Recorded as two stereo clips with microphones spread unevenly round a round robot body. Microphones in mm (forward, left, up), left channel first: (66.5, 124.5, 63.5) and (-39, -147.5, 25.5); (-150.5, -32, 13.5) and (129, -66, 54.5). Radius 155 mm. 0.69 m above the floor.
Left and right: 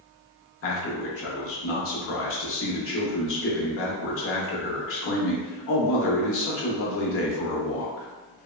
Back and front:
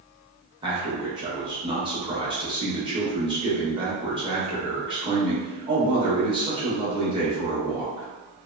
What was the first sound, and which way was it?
A man speaking, 70° left.